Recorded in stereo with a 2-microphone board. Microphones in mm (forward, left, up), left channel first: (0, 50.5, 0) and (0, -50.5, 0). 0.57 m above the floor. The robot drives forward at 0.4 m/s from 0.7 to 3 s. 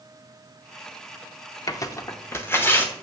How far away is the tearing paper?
About 0.6 m.